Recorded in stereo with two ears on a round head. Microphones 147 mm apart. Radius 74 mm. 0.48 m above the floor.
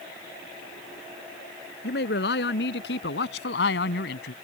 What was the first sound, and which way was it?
A man speaking, 65° left (ahead or behind).